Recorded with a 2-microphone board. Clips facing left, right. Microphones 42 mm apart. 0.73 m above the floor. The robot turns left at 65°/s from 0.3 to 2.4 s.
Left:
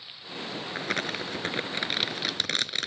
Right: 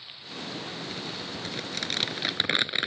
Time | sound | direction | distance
0.7 | crumpling | 90° left | ?